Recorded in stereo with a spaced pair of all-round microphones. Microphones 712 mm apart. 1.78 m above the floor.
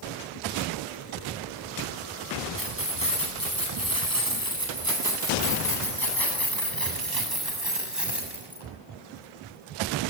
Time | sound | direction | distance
2.6 | keys jangling | 15° right (ahead or behind) | 9.5 m